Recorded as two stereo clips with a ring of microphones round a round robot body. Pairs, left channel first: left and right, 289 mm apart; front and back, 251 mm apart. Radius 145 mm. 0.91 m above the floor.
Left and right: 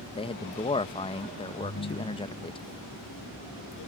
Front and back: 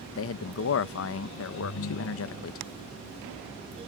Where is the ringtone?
35° left.